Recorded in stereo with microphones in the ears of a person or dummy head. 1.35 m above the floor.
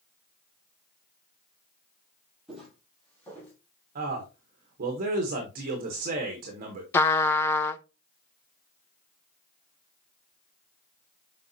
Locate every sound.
2.5 s footsteps: centre (ahead or behind), 2.5 m; by 3.5 s 10° left (ahead or behind), 3 m
4.0 s a man speaking: 45° right (ahead or behind), 1.1 m
6.9 s a trumpet: 15° left (ahead or behind), 0.5 m